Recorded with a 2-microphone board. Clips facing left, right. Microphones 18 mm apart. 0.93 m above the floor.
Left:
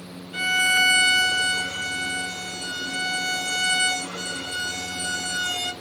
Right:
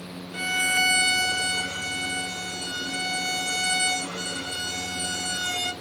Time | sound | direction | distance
0.3 | a violin | 45° left (ahead or behind) | 1.1 m